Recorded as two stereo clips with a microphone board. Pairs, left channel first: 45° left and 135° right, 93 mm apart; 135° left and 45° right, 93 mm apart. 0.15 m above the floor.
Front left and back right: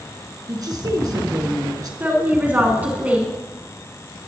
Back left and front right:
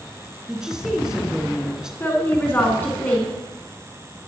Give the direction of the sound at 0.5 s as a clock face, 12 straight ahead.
4 o'clock.